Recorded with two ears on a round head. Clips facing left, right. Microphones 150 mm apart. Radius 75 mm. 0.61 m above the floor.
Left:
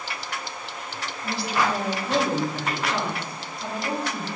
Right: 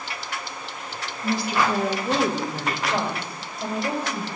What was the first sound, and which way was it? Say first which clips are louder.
A woman speaking: right 2 dB; 35° right (ahead or behind).